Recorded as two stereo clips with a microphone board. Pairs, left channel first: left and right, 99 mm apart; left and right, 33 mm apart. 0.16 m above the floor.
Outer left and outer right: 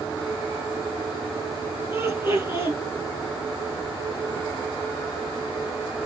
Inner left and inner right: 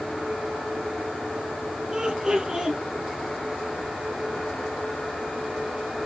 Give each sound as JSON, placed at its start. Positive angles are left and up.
{"t": 1.9, "sound": "laughter", "side_deg": -30, "distance_m": 3.0}